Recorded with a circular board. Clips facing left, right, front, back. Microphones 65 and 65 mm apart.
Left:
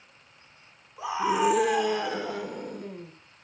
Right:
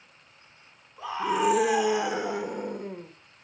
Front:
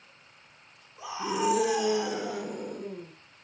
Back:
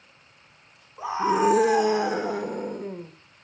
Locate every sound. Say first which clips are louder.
1.0 s a scream: left 1 dB, back 8 dB; 160° left, 1.4 m; by 3.1 s 140° right, 1.8 m